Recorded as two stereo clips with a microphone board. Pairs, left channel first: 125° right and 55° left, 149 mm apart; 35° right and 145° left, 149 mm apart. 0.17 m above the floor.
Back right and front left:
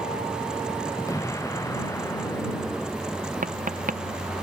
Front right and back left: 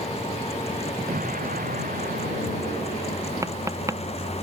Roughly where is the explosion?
Behind.